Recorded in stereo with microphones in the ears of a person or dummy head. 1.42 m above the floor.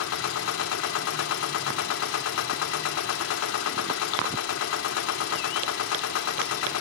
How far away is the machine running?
About 2.5 m.